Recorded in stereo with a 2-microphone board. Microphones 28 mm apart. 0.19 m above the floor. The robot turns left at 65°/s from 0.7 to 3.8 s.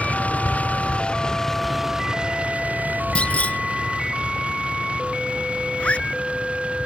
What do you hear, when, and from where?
0.0 s a vehicle: 60° left (ahead or behind); by 6.8 s 50° right (ahead or behind)
3.1 s a clunk: 45° left (ahead or behind); by 3.6 s 70° left (ahead or behind)
5.8 s a zipper: 55° left (ahead or behind)